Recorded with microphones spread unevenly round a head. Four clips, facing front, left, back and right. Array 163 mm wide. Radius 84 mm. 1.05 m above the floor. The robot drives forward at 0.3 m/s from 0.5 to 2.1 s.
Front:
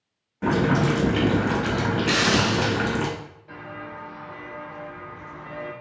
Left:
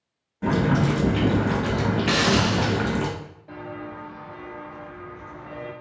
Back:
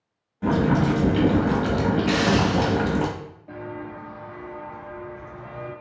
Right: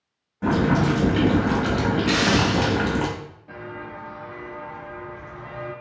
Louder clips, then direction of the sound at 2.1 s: Even, even; 110° left.